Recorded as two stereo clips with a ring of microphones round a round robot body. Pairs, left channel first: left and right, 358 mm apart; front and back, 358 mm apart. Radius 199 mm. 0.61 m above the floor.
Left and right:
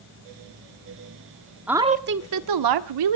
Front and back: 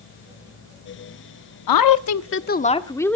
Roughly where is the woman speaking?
Ahead.